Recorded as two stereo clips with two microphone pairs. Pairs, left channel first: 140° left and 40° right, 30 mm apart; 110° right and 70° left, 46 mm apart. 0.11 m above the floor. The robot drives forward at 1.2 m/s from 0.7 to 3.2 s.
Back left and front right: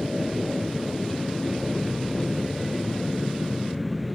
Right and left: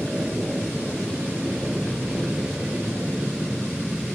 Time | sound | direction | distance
0.0 | an aircraft | 30° left | ?